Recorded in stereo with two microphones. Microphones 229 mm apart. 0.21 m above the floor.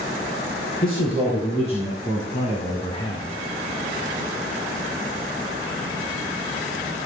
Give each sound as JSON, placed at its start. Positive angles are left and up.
{"t": 0.8, "sound": "a man speaking", "side_deg": 25, "distance_m": 3.5}